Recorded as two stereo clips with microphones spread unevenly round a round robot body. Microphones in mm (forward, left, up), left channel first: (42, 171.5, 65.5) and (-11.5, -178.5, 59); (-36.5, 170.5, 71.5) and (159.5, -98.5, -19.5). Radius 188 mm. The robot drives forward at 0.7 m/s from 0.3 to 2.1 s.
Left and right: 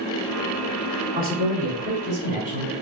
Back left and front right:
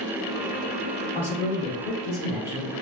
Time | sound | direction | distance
1.1 | a man speaking | 155° right | 1.4 m